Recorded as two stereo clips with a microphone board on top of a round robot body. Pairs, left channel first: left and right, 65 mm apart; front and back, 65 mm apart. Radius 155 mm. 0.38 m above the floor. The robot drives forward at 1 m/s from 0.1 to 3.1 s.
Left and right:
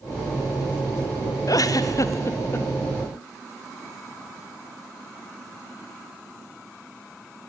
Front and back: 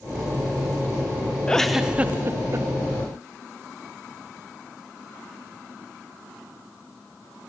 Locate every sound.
1.5 s a giggle: 75° left, 1.0 m; by 2.7 s 140° left, 1.4 m